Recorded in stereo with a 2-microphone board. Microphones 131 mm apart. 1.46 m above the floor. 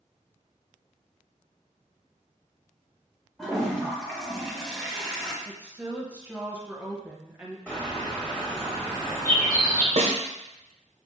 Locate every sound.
3.4 s a toilet flushing: 5° left (ahead or behind), 0.8 m
5.5 s a woman speaking: 10° right (ahead or behind), 0.8 m
7.7 s a bird: 10° left (ahead or behind), 1.1 m
10.0 s a snare drum: 55° right (ahead or behind), 0.8 m